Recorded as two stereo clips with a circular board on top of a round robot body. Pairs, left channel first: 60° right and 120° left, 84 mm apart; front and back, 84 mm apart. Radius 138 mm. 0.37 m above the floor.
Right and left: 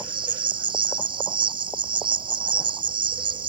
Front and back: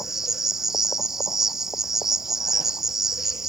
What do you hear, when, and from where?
0.0 s an insect: 95° left